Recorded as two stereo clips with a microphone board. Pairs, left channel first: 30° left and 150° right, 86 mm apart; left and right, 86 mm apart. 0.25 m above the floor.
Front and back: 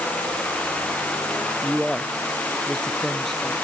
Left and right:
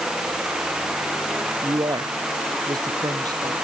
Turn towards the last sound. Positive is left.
turn(degrees=-55)